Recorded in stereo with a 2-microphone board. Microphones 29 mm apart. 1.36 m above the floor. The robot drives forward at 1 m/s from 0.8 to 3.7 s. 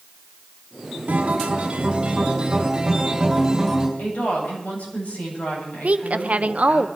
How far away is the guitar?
About 1.7 m.